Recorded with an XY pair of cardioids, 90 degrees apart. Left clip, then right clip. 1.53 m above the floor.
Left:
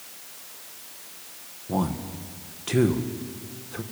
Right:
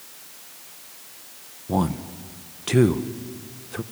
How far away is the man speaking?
About 1.8 m.